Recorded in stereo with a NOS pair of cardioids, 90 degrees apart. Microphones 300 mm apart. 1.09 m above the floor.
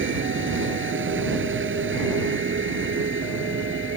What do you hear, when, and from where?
0.0 s a vehicle: 40° right